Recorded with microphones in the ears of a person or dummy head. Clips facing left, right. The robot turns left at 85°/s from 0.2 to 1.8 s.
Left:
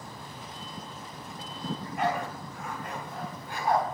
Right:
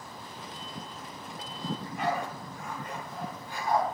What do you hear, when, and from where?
1.6 s a dog barking: 60° left (ahead or behind), 4 m; by 3.8 s 45° left (ahead or behind), 4 m